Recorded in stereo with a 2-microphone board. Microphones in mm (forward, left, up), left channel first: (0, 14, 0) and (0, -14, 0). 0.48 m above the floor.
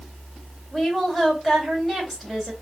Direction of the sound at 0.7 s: 10° left (ahead or behind).